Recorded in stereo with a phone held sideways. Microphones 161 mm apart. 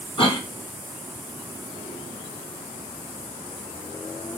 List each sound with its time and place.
0.2 s a cough: 35° left (ahead or behind), 2 m